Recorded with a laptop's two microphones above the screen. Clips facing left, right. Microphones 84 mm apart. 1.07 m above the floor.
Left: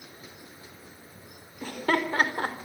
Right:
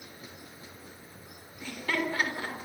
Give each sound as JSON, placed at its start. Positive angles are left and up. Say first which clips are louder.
{"t": 1.6, "sound": "laughter", "louder": "left 5 dB", "side_deg": 50, "distance_m": 3.5}